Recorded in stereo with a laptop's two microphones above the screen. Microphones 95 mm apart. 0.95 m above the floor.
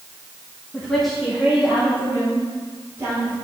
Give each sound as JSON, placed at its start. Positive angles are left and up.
{"t": 0.7, "sound": "a woman speaking", "side_deg": 15, "distance_m": 1.0}